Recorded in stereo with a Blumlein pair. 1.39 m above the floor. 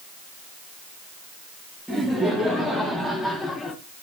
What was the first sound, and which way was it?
Laughter, 5° right.